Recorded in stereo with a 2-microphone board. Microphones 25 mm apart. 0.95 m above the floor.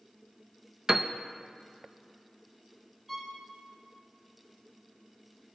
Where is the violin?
10° right (ahead or behind), 3.5 m.